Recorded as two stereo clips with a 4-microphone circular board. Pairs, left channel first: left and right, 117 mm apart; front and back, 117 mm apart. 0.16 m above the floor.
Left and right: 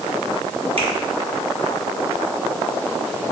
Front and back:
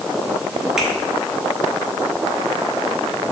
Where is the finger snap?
95° right, 2.5 m.